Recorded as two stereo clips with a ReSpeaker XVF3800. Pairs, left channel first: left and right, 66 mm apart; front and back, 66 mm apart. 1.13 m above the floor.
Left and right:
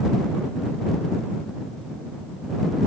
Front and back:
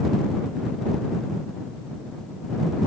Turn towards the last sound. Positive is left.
No sound to turn to.